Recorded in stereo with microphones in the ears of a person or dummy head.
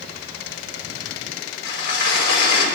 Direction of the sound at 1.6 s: 75° left (ahead or behind).